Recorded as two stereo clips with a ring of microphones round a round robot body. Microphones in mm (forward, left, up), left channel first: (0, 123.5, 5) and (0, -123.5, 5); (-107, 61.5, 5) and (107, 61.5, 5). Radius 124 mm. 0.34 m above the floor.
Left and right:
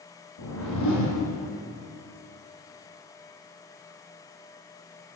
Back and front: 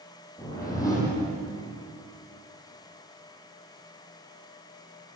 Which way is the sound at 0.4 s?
105° left.